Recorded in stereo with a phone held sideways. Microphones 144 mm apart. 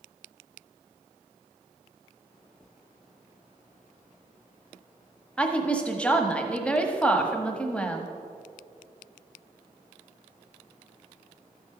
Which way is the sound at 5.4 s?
10° left (ahead or behind).